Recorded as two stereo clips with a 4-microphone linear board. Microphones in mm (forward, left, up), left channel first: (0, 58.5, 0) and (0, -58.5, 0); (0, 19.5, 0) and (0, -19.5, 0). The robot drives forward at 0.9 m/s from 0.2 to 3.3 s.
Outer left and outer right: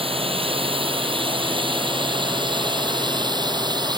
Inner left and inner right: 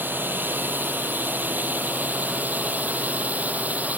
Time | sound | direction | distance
0.0 | a drone | 50° right (ahead or behind) | ?